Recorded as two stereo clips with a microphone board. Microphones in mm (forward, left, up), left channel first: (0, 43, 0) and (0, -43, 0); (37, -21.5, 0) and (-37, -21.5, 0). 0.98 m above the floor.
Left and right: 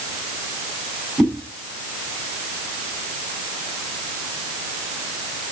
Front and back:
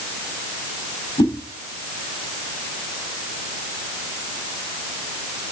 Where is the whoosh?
5° right, 6.5 m.